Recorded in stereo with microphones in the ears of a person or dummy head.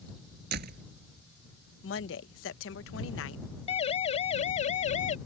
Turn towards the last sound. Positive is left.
turn(degrees=45)  # may be behind; listen again after turning